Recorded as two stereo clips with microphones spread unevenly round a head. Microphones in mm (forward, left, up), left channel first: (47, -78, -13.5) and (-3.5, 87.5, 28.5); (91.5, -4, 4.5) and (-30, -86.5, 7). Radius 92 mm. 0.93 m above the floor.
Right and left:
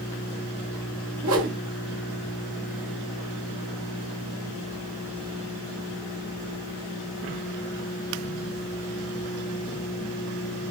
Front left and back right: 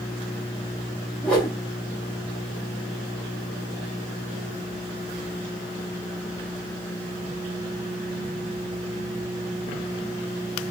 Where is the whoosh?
120° left, 1.7 m.